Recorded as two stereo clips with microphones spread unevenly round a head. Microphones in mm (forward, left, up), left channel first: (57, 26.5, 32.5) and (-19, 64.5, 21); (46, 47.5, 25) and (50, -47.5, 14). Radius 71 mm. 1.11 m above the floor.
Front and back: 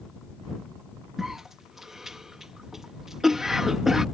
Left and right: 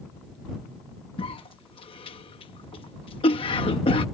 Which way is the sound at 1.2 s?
65° left.